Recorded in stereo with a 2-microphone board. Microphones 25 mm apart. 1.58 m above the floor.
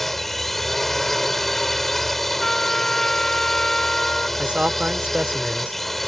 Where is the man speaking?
60° right (ahead or behind).